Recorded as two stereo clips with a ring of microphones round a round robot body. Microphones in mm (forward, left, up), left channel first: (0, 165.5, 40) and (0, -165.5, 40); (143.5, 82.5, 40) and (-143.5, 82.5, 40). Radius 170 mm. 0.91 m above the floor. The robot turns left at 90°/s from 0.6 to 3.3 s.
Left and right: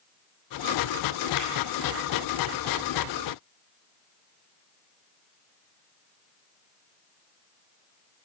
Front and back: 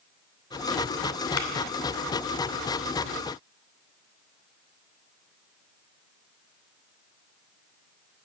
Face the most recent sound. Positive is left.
turn(degrees=-140)